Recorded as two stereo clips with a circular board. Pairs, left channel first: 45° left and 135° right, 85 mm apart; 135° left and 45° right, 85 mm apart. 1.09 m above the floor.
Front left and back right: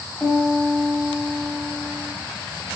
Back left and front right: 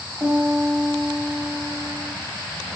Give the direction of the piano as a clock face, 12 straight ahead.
1 o'clock.